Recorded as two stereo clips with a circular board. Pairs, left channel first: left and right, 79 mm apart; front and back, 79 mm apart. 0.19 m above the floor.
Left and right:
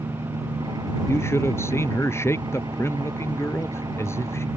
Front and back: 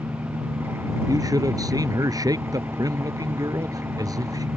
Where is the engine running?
120° right.